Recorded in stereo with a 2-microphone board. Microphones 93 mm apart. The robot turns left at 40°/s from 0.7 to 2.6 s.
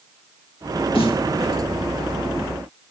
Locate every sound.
0.9 s a snare drum: 80° left, 1.2 m; by 1.3 s 75° left (ahead or behind), 1.2 m